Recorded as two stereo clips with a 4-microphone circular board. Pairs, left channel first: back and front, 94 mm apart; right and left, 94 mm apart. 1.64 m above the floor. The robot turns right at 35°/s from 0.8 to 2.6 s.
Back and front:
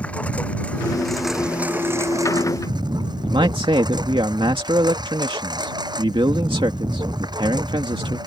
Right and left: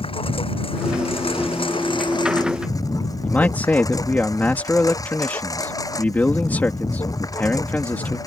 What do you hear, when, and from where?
0.0 s a lawn mower: 105° right; by 8.3 s 40° right
3.2 s a man speaking: 20° right